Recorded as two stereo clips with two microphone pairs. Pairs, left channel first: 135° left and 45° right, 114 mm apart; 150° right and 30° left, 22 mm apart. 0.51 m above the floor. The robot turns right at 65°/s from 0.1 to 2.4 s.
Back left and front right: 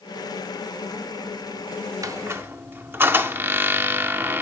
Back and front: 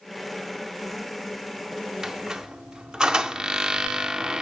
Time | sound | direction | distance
2.0 | a squeak | 15° right | 0.6 m